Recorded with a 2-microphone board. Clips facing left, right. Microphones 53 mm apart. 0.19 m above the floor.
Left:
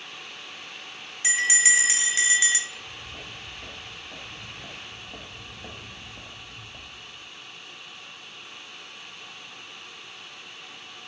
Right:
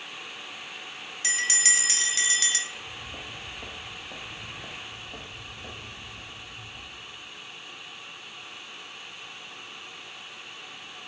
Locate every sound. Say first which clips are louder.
1.2 s a bell: left 5 dB; 15° left (ahead or behind), 0.6 m
2.7 s footsteps: right 1 dB; 35° right (ahead or behind), 1.9 m; by 7.3 s 65° left (ahead or behind), 1.1 m